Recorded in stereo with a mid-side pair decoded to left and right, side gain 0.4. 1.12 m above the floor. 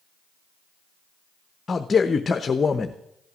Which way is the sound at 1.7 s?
40° left.